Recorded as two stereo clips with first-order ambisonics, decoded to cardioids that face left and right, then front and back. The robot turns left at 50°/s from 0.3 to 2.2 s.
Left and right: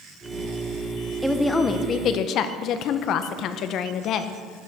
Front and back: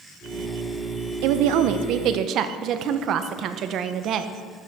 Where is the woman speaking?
175° right, 0.6 m; by 4.3 s 135° left, 0.6 m.